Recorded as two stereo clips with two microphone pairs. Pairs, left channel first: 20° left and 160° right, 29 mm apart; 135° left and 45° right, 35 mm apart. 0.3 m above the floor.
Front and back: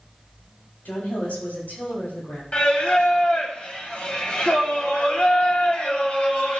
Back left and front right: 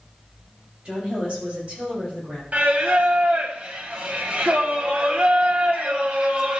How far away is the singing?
About 1.1 m.